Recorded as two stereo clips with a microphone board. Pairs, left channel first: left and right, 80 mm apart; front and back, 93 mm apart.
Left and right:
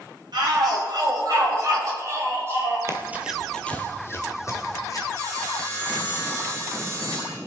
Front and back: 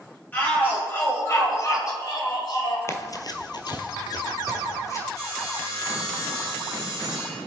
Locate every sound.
0.3 s a shout: 70° right, 5 m; by 2.8 s 30° right, 4.5 m
2.9 s running footsteps: 50° right, 1.2 m; by 5.0 s 50° left, 3 m
5.1 s sawing: 45° right, 5.5 m